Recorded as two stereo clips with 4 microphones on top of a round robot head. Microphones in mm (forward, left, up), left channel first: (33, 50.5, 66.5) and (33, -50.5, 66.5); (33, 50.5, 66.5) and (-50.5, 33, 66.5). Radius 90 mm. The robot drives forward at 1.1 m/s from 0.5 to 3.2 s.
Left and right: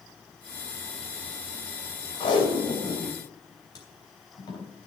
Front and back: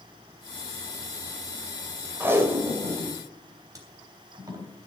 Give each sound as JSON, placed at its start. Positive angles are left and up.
{"t": 2.2, "sound": "tape being pulled", "azimuth_deg": 125, "distance_m": 2.5}